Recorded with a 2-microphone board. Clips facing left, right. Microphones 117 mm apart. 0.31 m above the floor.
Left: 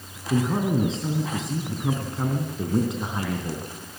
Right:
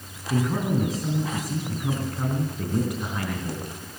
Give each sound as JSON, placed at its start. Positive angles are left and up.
{"t": 0.3, "sound": "a man speaking", "side_deg": 25, "distance_m": 3.0}